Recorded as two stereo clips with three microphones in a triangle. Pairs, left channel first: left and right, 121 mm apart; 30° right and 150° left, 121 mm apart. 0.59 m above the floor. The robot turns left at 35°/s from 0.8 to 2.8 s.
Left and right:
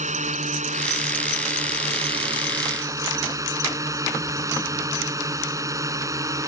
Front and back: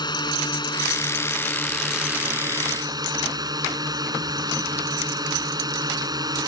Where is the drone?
85° right; by 6.5 s 155° right.